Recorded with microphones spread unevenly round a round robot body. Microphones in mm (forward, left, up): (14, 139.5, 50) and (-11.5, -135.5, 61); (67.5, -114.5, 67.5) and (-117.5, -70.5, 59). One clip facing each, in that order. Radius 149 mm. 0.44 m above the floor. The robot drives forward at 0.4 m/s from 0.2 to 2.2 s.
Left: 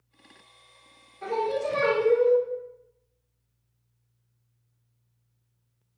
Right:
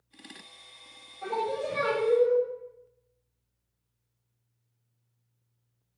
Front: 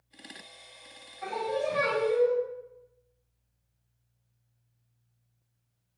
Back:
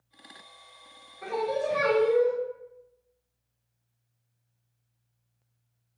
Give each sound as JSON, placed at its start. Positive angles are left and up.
{"t": 1.2, "sound": "singing", "azimuth_deg": 130, "distance_m": 1.1}